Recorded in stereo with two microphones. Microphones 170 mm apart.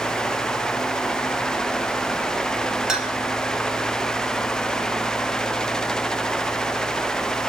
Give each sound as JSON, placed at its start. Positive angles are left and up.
{"t": 2.9, "sound": "a clink", "side_deg": -5, "distance_m": 1.2}